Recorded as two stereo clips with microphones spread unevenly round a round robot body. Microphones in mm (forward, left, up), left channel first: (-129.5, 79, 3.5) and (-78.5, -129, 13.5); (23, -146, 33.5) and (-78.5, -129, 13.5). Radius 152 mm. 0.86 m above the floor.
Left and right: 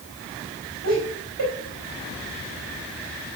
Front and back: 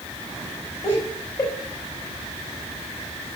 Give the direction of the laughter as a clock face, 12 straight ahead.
1 o'clock.